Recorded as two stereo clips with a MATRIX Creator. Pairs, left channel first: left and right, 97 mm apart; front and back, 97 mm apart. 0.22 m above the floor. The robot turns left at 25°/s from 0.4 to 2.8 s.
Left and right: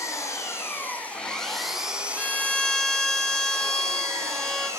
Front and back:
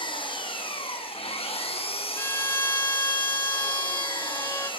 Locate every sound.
0.0 s an engine running: 30° left, 3.5 m; by 4.8 s 30° right, 3.5 m
2.2 s a violin: 25° left, 1.0 m; by 4.7 s 10° left, 1.0 m